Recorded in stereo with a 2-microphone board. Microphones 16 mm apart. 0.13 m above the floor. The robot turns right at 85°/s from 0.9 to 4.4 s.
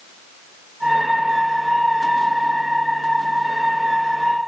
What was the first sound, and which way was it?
Only background noise.